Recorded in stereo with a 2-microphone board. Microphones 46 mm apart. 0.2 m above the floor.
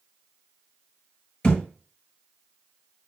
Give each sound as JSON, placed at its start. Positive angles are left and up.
{"t": 1.4, "sound": "a thud", "side_deg": 20, "distance_m": 1.0}